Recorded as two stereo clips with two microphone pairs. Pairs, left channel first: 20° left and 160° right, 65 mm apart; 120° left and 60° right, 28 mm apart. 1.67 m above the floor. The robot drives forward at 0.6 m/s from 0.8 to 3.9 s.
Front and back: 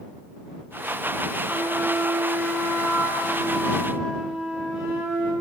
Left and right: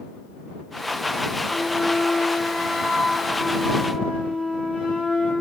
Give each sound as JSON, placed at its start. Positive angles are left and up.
{"t": 1.5, "sound": "a flute", "azimuth_deg": 100, "distance_m": 1.0}